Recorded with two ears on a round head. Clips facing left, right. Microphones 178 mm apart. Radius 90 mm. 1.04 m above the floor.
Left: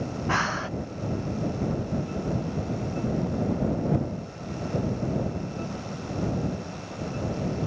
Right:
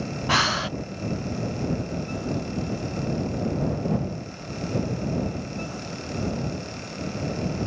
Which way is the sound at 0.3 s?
40° right (ahead or behind).